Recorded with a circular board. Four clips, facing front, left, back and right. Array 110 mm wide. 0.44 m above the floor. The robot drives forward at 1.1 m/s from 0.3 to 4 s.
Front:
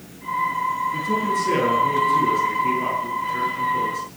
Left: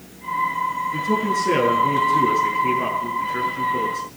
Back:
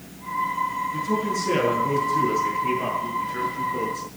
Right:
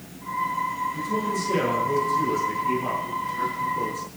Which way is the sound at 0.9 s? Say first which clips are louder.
Left 5 dB, front 2 dB; 75° left.